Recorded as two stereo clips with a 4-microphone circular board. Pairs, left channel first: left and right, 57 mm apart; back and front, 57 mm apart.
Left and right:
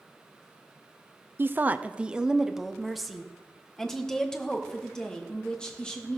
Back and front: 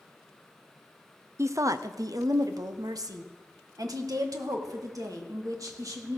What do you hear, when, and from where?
1.4 s a woman speaking: 40° right, 0.7 m; by 6.2 s 15° left, 3 m